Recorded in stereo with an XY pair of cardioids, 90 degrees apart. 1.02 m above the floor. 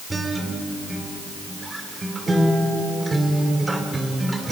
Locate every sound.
0.1 s a guitar: 25° right, 3 m